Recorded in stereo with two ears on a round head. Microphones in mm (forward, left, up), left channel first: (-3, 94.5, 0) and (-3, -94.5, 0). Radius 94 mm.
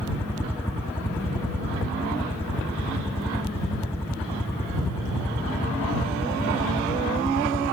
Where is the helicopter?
10° left (ahead or behind).